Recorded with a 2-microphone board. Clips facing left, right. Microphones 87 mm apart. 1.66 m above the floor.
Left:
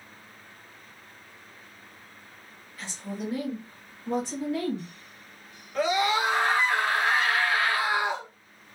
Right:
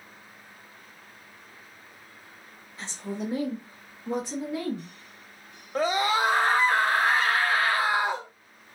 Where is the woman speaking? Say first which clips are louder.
Right 2 dB; 25° right (ahead or behind), 0.7 m; by 4.9 s 10° right (ahead or behind), 1.2 m.